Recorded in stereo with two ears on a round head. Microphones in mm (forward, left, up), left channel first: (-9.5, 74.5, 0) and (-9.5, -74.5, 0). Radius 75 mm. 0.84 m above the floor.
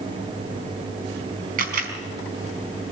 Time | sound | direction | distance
1.6 | a camera shutter | 60° right (ahead or behind) | 5 m